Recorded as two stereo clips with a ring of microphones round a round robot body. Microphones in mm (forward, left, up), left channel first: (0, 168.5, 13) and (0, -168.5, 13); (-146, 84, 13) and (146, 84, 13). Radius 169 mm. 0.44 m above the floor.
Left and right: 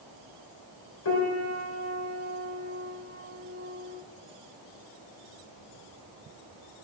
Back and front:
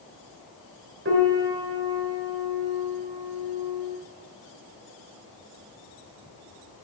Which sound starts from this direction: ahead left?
A piano, at 1.1 s.